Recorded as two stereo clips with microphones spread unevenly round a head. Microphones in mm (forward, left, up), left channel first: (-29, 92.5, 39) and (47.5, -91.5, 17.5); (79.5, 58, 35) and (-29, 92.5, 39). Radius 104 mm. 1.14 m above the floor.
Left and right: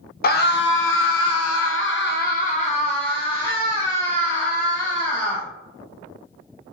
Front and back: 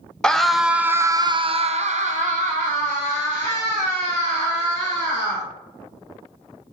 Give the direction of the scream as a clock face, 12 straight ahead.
10 o'clock.